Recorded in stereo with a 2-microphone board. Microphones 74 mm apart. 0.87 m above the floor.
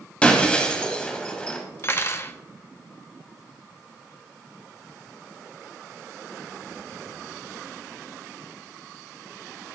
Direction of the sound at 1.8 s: 35° left (ahead or behind).